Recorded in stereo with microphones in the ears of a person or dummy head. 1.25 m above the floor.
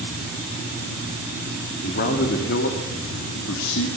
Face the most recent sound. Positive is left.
turn(degrees=80)